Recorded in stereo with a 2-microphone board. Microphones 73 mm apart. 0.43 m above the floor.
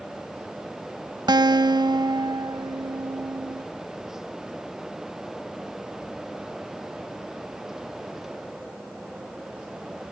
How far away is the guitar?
About 0.5 m.